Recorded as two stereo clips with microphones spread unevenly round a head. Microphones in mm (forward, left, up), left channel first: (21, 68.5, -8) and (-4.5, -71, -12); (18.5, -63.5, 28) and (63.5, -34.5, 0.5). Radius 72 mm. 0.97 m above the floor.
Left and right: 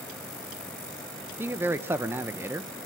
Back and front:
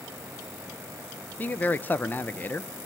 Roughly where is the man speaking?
Ahead right.